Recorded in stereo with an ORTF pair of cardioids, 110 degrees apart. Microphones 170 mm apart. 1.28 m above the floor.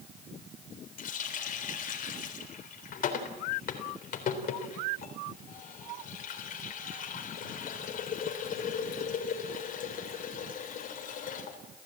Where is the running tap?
55° left, 3.5 m.